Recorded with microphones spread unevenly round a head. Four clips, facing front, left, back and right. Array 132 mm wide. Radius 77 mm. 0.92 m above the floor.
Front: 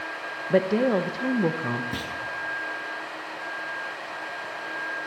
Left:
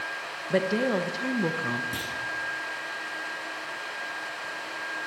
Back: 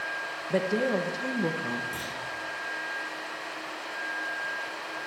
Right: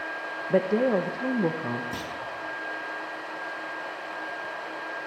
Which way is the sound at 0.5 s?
65° right.